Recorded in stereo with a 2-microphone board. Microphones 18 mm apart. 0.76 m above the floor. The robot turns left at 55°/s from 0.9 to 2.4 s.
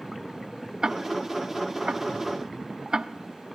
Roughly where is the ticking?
Right.